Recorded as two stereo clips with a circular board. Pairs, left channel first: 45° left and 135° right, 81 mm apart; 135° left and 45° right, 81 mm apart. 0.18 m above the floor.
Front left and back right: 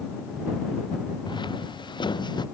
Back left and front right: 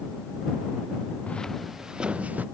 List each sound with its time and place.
1.3 s footsteps: 60° left; by 2.5 s 25° left